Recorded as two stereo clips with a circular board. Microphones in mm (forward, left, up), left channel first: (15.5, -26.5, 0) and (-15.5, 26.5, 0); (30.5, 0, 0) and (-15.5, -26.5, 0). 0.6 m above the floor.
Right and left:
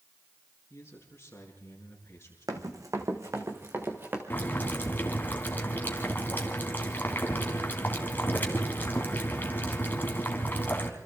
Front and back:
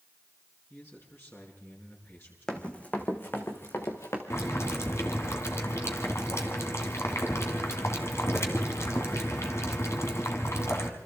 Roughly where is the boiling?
Ahead.